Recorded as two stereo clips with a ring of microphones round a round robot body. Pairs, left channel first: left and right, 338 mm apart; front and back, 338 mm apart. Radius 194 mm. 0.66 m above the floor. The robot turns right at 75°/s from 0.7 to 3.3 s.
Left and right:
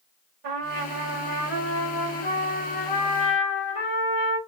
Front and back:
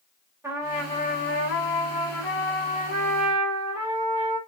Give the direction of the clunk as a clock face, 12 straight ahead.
No clunk in this recording.